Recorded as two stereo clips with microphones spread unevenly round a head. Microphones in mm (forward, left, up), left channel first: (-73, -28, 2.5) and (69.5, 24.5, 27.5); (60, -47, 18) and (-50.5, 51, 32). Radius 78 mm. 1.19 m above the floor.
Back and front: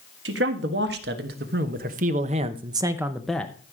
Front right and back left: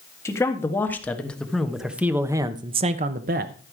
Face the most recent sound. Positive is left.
turn(degrees=120)